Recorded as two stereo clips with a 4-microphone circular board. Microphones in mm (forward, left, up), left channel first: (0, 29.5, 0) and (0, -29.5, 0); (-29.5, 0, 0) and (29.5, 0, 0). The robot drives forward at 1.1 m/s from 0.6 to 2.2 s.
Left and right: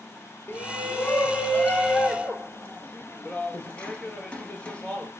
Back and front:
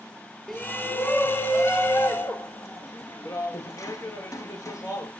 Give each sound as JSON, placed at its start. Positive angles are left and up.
{"t": 0.5, "sound": "a shout", "azimuth_deg": 95, "distance_m": 1.2}